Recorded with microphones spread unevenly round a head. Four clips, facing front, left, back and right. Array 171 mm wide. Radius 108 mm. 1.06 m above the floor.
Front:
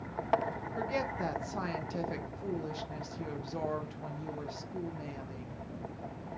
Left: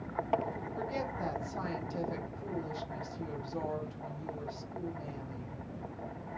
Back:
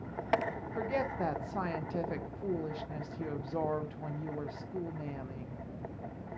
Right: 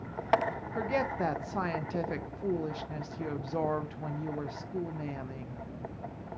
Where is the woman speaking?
85° right, 0.6 m.